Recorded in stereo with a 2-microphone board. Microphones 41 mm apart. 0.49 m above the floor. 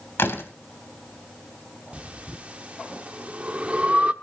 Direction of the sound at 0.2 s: 75° left (ahead or behind).